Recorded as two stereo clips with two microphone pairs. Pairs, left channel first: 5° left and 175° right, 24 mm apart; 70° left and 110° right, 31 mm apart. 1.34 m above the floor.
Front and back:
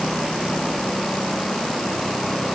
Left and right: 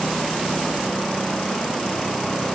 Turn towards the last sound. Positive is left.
No sound to turn to.